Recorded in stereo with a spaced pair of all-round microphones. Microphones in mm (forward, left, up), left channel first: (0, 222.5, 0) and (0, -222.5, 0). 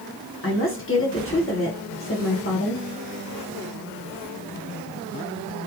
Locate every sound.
0.4 s a woman speaking: 30° left (ahead or behind), 1.3 m